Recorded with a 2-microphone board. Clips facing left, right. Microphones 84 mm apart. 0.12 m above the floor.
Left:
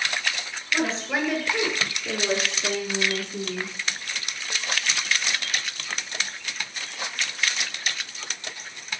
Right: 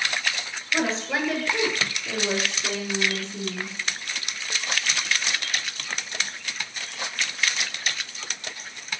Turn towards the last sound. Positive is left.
turn(degrees=55)  # may be behind; listen again after turning